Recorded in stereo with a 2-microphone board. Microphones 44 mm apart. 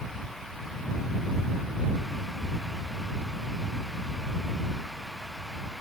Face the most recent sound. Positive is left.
No sound to turn to.